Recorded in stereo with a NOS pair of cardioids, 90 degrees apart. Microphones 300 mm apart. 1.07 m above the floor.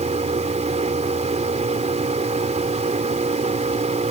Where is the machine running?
20° right.